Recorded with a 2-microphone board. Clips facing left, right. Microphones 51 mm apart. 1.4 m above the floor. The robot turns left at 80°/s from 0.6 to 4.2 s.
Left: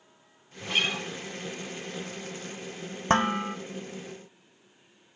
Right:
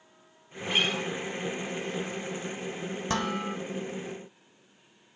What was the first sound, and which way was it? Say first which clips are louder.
A guitar: right 1 dB; 160° right.